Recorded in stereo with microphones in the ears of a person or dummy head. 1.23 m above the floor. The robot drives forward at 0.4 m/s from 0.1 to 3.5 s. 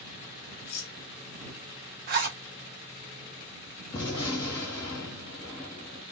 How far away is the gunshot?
About 1.2 m.